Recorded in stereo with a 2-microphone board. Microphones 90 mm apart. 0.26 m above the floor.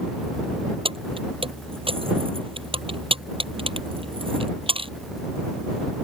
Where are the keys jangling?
80° right.